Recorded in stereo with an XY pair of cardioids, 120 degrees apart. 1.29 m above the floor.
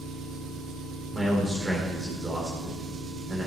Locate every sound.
0.0 s an engine running: 70° right, 5.5 m
1.1 s a man speaking: 15° right, 4 m